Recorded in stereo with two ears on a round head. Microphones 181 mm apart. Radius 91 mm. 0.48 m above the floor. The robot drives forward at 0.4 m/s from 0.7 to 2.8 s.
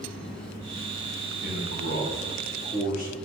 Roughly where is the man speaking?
Left.